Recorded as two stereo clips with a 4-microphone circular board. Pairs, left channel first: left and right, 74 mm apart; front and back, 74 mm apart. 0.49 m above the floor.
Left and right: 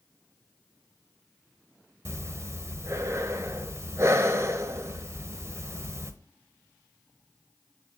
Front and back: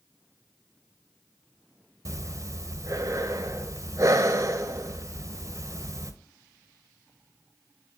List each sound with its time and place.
2.0 s breathing: 140° right, 1.0 m